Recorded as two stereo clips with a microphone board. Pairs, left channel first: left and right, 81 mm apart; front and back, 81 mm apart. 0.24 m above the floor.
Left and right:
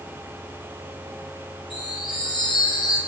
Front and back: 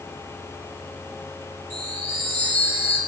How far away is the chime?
About 4.5 m.